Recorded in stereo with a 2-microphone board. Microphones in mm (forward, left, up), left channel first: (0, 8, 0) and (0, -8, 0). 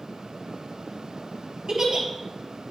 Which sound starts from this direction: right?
A giggle, at 1.7 s.